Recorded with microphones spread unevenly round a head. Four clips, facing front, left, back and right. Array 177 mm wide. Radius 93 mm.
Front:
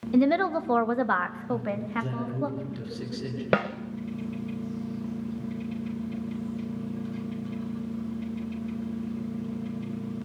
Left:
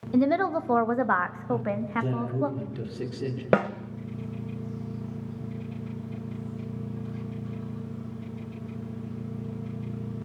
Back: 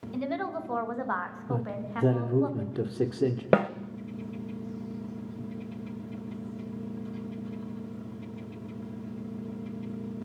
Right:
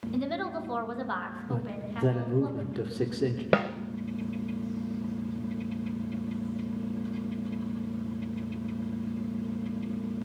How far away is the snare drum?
About 1.0 m.